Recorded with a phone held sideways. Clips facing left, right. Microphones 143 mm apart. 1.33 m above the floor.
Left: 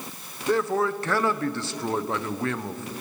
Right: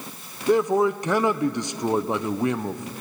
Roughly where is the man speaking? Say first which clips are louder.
Right 4 dB; centre.